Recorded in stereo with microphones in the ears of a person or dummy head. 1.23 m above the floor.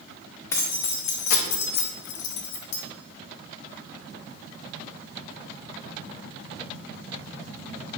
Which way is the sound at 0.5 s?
15° left (ahead or behind).